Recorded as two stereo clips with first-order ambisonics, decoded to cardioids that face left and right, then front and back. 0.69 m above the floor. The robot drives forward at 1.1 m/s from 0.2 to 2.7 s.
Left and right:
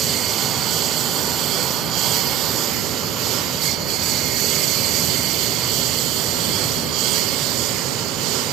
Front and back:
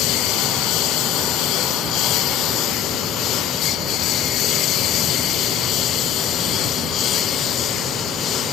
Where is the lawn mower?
35° right; by 8.5 s 55° right.